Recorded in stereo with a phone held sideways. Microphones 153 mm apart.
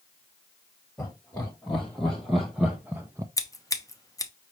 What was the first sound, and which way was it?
Laughter, 5° left (ahead or behind).